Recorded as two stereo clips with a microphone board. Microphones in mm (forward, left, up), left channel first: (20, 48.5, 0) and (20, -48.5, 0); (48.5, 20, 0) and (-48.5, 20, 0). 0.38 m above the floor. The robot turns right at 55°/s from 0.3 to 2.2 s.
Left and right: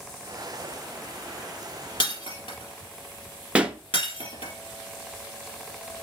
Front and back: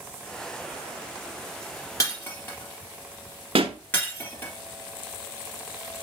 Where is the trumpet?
I don't hear a trumpet.